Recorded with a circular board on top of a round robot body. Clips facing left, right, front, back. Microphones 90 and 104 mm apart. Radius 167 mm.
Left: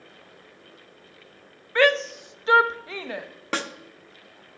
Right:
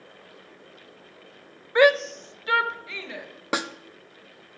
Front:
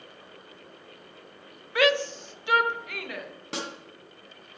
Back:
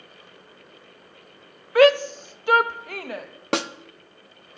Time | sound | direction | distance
1.8 | a shout | 155° right | 0.5 m
3.5 | a snare drum | 165° right | 0.5 m